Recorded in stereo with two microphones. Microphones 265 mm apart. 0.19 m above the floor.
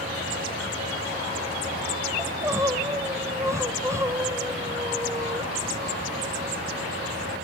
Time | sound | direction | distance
2.2 | crying | 10° right (ahead or behind) | 1.8 m